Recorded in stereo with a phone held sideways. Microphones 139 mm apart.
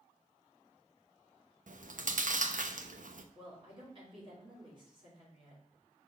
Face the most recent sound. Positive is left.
turn(degrees=-35)  # may be behind; listen again after turning